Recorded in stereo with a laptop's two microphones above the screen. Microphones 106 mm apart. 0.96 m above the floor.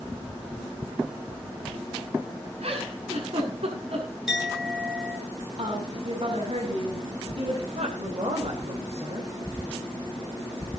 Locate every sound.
2.6 s a giggle: 60° right (ahead or behind), 7.5 m
4.3 s a clink: 5° right (ahead or behind), 9 m
5.6 s a woman speaking: 55° right (ahead or behind), 8.5 m
7.7 s a woman speaking: 70° right (ahead or behind), 4.5 m